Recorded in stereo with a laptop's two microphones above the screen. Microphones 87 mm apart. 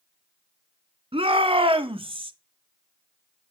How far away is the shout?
About 1.6 m.